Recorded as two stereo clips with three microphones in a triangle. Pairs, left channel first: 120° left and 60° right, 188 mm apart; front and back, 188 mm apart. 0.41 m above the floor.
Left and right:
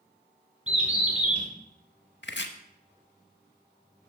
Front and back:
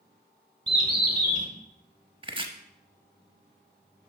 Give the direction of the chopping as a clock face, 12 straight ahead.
8 o'clock.